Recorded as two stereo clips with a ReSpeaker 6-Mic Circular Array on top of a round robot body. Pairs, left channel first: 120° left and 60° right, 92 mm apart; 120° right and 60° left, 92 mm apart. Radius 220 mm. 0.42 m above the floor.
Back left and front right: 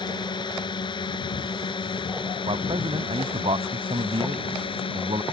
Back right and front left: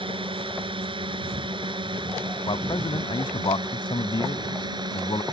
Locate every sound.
0.0 s a drone: 85° left; by 5.3 s 100° left
2.5 s a man speaking: 85° right